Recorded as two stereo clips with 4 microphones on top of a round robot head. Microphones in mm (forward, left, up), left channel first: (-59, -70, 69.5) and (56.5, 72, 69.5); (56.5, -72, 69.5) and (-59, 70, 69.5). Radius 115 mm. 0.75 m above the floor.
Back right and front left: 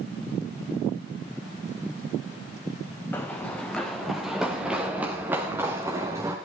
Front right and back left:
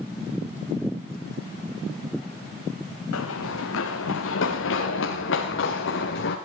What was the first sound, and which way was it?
Running footsteps, 50° right.